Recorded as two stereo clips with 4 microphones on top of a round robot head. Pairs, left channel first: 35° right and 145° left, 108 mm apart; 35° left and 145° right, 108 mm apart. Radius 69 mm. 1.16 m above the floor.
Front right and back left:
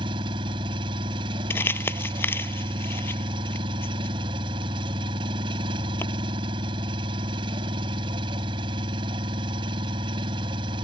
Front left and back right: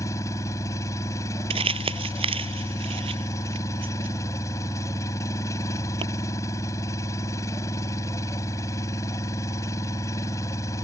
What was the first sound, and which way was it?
An engine running, 100° left.